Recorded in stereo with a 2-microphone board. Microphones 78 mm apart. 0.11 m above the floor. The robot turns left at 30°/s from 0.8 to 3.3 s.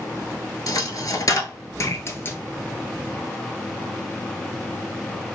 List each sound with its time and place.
0.7 s a dropped coin: 50° left (ahead or behind), 0.6 m; by 2.4 s 30° left (ahead or behind), 0.6 m